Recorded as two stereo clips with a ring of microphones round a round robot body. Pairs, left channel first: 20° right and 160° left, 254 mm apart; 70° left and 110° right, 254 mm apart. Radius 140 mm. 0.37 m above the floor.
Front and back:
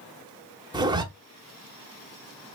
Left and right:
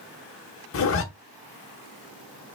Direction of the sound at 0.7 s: 85° left.